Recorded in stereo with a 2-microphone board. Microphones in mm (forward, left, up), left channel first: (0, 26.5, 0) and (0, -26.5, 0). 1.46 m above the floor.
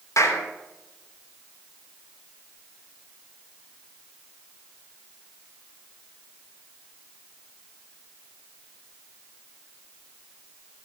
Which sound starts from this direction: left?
A clap, at 0.2 s.